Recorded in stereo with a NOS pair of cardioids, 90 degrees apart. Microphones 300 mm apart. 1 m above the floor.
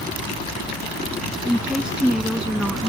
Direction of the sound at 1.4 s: 5° right.